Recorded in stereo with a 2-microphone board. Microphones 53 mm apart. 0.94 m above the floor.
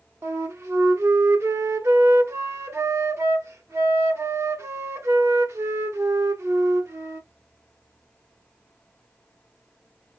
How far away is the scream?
I don't hear a scream.